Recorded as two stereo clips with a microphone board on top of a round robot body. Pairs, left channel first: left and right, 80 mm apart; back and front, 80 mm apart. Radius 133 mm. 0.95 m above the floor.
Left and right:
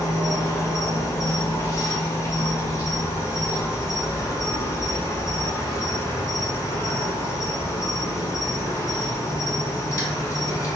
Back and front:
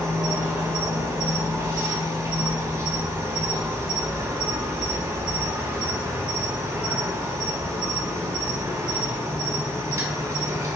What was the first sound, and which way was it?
An insect, 40° left.